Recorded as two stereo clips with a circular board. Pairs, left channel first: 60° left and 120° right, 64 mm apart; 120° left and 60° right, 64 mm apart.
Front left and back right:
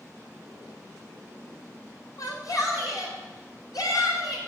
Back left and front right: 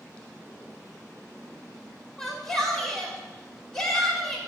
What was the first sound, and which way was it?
A shout, 40° left.